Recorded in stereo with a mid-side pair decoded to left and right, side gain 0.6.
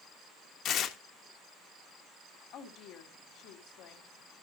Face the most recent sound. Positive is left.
turn(degrees=60)